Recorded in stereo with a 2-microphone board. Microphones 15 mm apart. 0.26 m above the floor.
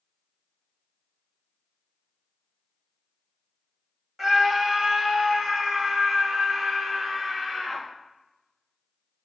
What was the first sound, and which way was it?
A scream, 25° right (ahead or behind).